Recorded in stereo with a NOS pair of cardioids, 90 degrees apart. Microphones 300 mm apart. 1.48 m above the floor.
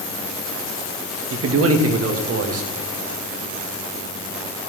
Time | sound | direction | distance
1.3 | a man speaking | 50° right | 2.5 m